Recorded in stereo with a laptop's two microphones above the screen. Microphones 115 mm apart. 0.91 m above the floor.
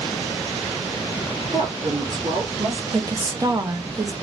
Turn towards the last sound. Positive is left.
turn(degrees=-30)  # may be behind; listen again after turning